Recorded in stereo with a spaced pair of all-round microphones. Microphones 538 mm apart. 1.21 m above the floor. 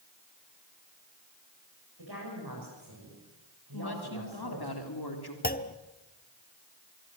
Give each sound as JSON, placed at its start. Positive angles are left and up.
{"t": 2.0, "sound": "a woman speaking", "side_deg": -45, "distance_m": 7.0}
{"t": 3.7, "sound": "a woman speaking", "side_deg": 45, "distance_m": 3.5}
{"t": 5.4, "sound": "a clunk", "side_deg": 15, "distance_m": 1.0}